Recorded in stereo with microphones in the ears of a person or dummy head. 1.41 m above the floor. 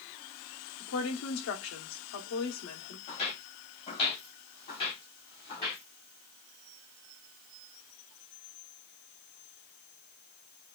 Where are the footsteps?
35° left (ahead or behind), 2.5 m; by 5.8 s 30° left (ahead or behind), 4.5 m.